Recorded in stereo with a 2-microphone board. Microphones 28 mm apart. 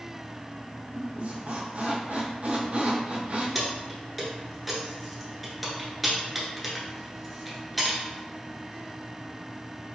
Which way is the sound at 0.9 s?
55° right (ahead or behind).